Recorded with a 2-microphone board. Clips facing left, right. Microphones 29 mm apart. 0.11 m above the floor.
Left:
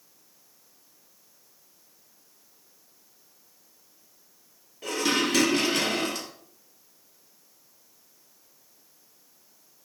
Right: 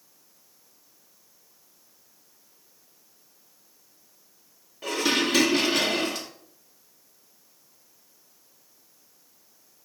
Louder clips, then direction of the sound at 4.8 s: Right 1 dB; 10° right (ahead or behind).